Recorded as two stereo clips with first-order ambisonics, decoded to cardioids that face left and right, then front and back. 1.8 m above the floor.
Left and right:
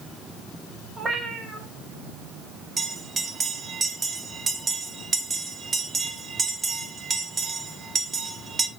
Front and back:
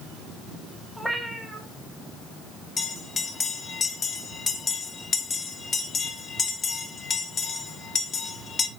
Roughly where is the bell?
Ahead right.